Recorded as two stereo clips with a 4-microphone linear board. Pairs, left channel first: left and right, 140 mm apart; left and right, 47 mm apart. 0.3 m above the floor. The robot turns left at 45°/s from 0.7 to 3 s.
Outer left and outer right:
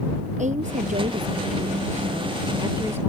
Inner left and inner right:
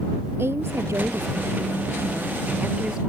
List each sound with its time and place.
0.4 s a woman speaking: 60° right; by 3.1 s 165° right